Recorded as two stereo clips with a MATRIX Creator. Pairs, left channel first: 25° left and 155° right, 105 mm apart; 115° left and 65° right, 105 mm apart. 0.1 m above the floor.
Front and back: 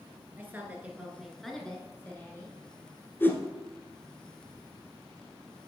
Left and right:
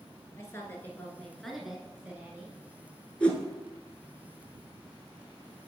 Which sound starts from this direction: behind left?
A woman speaking, at 0.4 s.